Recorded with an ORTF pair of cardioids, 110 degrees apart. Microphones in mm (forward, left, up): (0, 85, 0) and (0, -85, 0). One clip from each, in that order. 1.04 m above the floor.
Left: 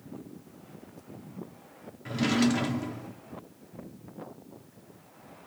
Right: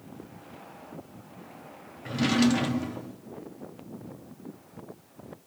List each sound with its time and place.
2.0 s a drawer: 5° right, 1.1 m